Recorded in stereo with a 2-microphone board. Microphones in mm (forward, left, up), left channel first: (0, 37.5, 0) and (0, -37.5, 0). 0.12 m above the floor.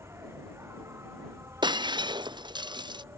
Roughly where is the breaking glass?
Right.